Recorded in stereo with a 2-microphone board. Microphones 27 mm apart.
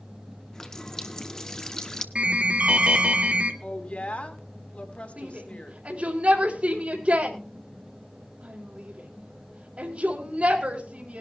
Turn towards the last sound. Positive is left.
turn(degrees=-55)  # may be behind; listen again after turning